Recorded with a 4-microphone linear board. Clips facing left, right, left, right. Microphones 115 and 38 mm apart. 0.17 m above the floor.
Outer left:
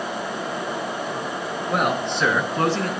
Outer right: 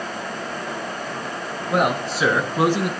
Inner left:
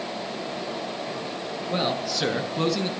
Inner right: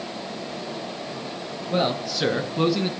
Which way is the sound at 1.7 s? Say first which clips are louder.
Outer right 2 dB, inner right 3 dB; centre (ahead or behind).